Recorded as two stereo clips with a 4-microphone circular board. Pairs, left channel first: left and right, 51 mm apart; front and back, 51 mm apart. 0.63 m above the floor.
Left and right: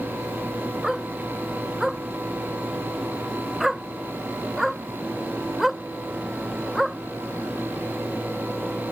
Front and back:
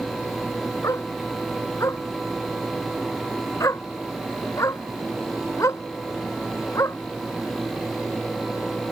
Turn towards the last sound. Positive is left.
turn(degrees=-5)